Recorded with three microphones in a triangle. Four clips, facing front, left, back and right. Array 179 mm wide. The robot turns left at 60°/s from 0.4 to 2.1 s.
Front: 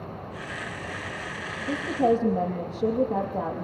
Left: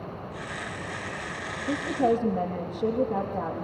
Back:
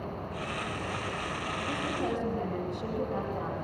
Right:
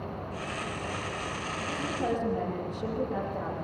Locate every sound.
1.7 s a woman speaking: 45° left, 6.5 m; by 3.6 s 20° left, 6.5 m